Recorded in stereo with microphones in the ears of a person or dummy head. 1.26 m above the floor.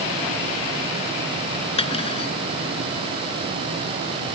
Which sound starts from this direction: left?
Cutlery clinking, at 1.8 s.